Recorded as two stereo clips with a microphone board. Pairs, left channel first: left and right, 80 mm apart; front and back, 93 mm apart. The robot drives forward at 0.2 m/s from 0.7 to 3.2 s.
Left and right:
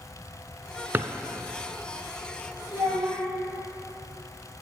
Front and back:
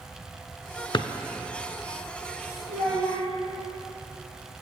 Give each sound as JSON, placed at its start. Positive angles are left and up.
{"t": 0.9, "sound": "a drawer", "azimuth_deg": -30, "distance_m": 0.6}
{"t": 2.7, "sound": "a child speaking", "azimuth_deg": -175, "distance_m": 4.0}